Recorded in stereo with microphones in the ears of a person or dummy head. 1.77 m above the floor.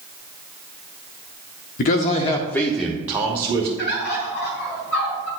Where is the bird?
65° left (ahead or behind), 3 m.